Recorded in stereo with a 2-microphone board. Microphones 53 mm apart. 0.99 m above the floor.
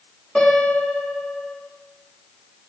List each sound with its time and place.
0.3 s a piano: 10° left (ahead or behind), 2.5 m